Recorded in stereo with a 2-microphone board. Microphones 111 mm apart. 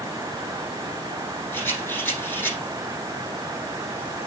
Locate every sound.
1.5 s a rattle: 15° left (ahead or behind), 6.5 m